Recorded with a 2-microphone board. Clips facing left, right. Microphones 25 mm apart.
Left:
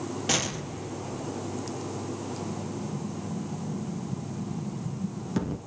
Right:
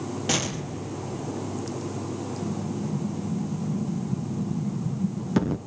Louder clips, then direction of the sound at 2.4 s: Right 4 dB; 25° right (ahead or behind).